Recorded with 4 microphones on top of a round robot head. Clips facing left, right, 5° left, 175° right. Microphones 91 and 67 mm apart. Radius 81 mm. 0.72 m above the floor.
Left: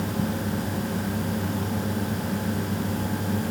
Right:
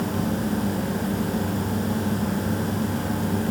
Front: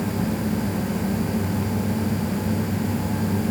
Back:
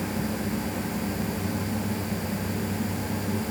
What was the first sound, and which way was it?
Only background noise.